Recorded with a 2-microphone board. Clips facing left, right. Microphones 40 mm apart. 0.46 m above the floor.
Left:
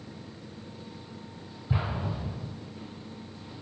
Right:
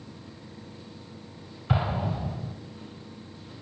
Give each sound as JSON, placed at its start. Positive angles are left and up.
{"t": 1.7, "sound": "an explosion", "side_deg": -70, "distance_m": 3.0}